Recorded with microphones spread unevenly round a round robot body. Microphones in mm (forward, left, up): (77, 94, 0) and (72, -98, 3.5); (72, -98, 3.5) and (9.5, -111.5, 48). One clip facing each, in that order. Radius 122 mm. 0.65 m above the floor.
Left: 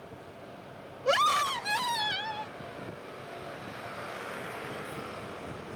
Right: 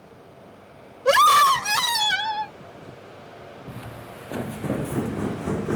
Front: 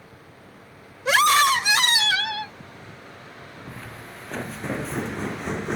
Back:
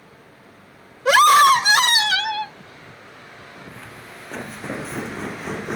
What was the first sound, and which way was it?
A scream, 135° right.